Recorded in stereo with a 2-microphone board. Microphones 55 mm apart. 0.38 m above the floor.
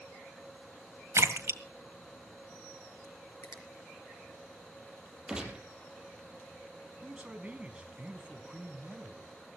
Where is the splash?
60° right (ahead or behind), 1.8 m.